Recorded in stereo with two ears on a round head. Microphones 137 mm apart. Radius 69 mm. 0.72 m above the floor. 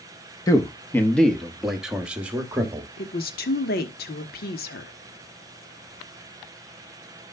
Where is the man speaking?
25° left (ahead or behind), 0.9 m; by 2.9 s 15° right (ahead or behind), 1.6 m.